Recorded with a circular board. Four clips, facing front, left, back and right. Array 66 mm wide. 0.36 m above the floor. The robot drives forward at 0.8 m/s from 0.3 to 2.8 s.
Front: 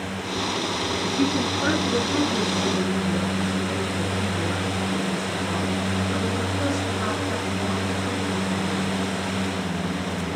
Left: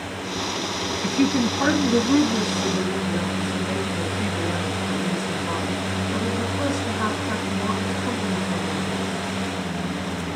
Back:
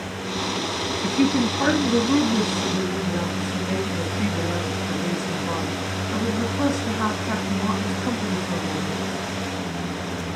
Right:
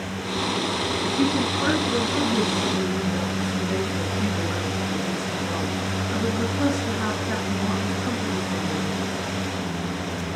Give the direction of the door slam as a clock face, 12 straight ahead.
I don't hear a door slam.